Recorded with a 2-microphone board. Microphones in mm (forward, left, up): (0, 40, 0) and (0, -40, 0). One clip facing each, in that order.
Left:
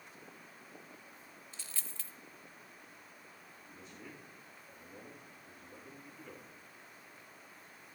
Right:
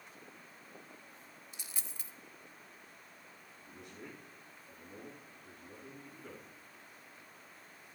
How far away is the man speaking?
About 9.5 m.